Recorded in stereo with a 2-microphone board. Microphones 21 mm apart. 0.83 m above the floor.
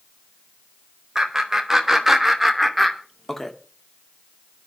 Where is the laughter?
20° right (ahead or behind), 4 m; by 3.5 s 20° left (ahead or behind), 2.5 m.